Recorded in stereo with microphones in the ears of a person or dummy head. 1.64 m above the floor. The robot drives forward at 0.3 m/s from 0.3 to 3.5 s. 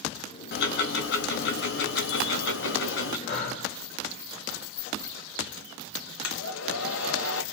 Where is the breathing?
65° left (ahead or behind), 3 m.